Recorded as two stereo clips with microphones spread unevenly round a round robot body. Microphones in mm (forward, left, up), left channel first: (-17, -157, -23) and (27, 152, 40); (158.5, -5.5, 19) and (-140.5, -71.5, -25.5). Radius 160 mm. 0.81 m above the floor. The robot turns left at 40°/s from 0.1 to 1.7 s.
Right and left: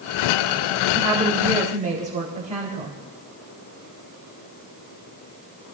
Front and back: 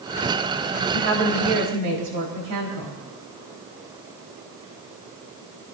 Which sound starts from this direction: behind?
A woman speaking, at 0.9 s.